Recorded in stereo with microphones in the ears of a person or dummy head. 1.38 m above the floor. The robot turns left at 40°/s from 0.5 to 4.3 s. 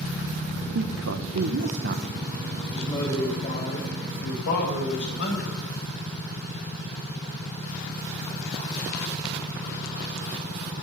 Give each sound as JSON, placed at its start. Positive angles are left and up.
{"t": 0.7, "sound": "a man speaking", "azimuth_deg": -80, "distance_m": 1.2}
{"t": 2.7, "sound": "a man speaking", "azimuth_deg": 175, "distance_m": 7.0}